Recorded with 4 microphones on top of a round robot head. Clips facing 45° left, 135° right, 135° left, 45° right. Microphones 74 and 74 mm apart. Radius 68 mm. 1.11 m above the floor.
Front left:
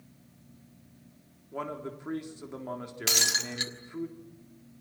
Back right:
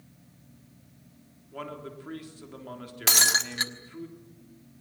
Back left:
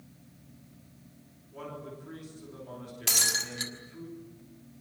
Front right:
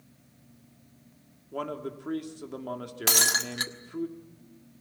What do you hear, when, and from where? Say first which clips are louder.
1.5 s a man speaking: front left 2 dB, front right 7 dB; 25° right, 3.5 m
3.1 s breaking glass: back right 6 dB, front right 6 dB; 85° right, 1.3 m